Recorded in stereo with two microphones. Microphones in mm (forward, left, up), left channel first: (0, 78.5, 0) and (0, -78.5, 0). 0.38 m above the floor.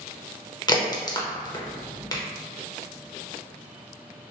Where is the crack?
25° left (ahead or behind), 0.6 m.